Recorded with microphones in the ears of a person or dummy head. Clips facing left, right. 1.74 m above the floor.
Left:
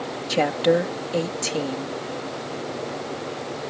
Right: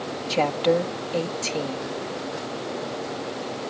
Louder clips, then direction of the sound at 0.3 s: Left 2 dB; 10° left (ahead or behind).